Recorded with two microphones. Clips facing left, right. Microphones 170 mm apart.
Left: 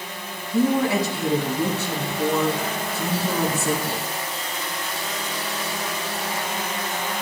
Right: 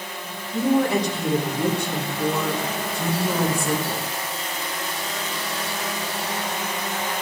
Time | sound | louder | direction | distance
0.5 | a woman speaking | even | 5° left (ahead or behind) | 5 m